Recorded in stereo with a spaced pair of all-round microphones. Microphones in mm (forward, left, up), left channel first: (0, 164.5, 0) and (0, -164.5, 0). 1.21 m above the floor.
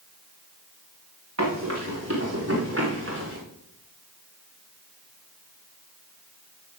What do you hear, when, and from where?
1.4 s running footsteps: 55° right (ahead or behind), 8.5 m; by 3.4 s 40° right (ahead or behind), 7 m